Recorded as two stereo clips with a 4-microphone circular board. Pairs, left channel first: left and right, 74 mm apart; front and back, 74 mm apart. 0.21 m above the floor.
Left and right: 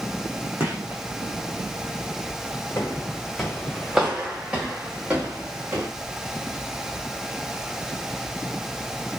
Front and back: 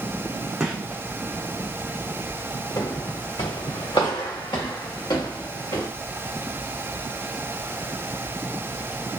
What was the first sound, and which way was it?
A gunshot, 110° right.